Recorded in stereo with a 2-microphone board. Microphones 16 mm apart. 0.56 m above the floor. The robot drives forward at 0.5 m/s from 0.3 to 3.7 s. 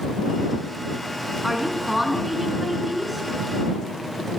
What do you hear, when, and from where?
1.4 s a woman speaking: 10° right (ahead or behind), 5 m